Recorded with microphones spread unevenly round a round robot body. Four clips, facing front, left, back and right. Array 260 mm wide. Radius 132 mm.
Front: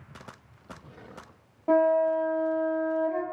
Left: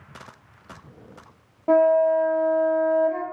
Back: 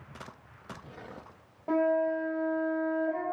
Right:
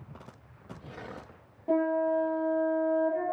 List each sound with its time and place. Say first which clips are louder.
1.7 s a flute: left 9 dB, front 5 dB; 80° left, 0.6 m